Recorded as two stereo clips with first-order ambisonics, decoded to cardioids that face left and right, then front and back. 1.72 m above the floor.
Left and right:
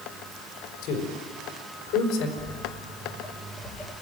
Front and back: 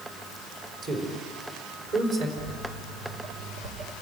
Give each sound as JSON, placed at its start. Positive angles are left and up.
{"t": 0.8, "sound": "a man speaking", "azimuth_deg": 125, "distance_m": 4.5}
{"t": 2.4, "sound": "footsteps", "azimuth_deg": 180, "distance_m": 2.5}